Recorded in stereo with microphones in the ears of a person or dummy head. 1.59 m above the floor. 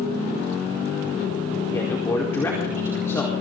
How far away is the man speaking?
About 4.5 m.